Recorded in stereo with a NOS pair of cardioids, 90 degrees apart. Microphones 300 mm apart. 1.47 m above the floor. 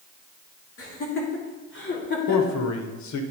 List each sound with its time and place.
0.8 s laughter: 45° left, 2.5 m; by 2.6 s 30° left, 3 m
2.3 s a man speaking: 65° left, 1.2 m